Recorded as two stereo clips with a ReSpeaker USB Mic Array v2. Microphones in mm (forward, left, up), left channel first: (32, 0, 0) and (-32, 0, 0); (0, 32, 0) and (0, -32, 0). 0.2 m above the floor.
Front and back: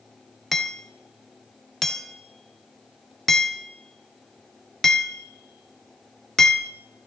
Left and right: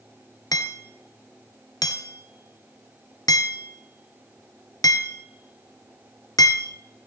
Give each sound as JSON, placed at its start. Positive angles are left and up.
{"t": 0.5, "sound": "hammering", "azimuth_deg": 85, "distance_m": 1.1}